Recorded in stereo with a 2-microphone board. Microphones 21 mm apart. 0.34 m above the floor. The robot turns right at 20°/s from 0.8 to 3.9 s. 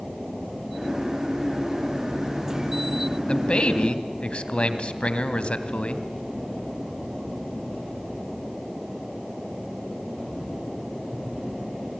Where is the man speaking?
50° left (ahead or behind), 2 m; by 6.0 s 60° left (ahead or behind), 2 m.